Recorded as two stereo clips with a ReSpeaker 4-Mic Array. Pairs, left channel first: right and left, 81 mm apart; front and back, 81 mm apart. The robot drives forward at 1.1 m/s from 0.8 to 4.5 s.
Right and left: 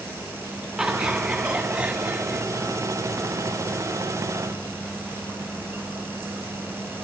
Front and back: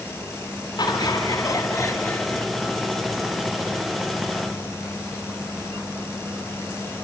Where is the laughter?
10° left, 2.5 m; by 2.4 s 55° left, 1.2 m.